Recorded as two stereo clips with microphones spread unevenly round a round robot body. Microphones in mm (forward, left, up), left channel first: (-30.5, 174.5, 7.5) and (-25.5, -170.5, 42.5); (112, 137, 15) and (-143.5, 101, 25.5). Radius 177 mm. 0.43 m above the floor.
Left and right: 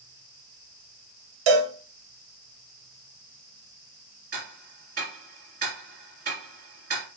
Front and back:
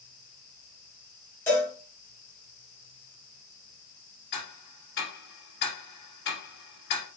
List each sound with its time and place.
1.5 s a cowbell: 75° right, 1.0 m
4.3 s ticking: 25° right, 1.6 m